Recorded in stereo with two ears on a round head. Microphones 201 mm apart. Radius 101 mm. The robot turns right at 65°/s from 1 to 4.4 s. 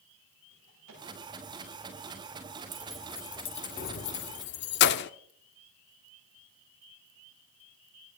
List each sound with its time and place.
0.5 s a drawer: 85° right, 9 m
2.7 s keys jangling: 10° right (ahead or behind), 0.5 m; by 5.1 s 50° left (ahead or behind), 0.5 m